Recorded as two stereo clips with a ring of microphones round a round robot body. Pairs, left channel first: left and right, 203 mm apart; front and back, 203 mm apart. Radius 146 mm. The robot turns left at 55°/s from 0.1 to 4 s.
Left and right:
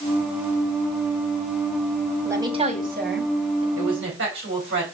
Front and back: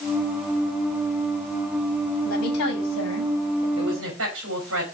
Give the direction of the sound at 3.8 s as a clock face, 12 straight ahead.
4 o'clock.